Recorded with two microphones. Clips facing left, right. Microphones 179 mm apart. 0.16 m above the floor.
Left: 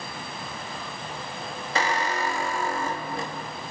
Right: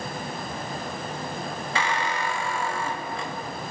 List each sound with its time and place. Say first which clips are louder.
1.8 s a squeak: left 2 dB; 40° left (ahead or behind), 0.8 m